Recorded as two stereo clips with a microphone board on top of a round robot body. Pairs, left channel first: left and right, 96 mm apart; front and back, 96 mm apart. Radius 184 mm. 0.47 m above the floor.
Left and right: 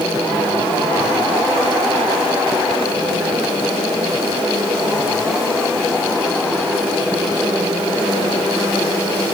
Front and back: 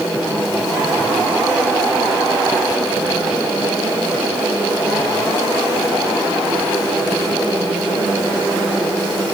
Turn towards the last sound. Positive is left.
No sound to turn to.